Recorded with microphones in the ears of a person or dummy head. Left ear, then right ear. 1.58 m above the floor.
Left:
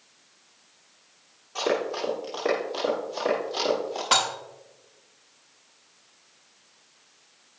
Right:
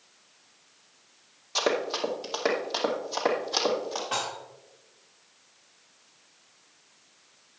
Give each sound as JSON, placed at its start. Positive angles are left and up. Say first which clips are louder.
{"t": 1.6, "sound": "running footsteps", "louder": "even", "side_deg": -50, "distance_m": 2.5}
{"t": 4.1, "sound": "dishes clattering", "louder": "left 10 dB", "side_deg": 60, "distance_m": 1.4}